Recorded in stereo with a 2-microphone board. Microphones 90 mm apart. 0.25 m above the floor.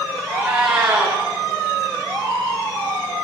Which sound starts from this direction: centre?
A cat meowing, at 0.3 s.